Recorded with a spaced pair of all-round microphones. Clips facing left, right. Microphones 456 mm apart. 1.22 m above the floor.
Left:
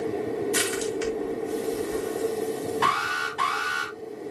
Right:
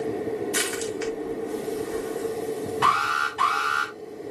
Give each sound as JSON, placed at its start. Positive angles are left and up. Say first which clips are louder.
{"t": 0.5, "sound": "crushing", "louder": "left 2 dB", "side_deg": 55, "distance_m": 2.5}
{"t": 2.8, "sound": "an alarm", "louder": "even", "side_deg": -25, "distance_m": 2.0}